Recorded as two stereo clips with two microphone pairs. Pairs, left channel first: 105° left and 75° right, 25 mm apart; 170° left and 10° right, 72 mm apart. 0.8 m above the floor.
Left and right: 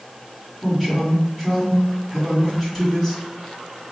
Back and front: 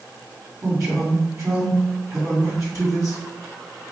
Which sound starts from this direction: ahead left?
A man speaking, at 0.6 s.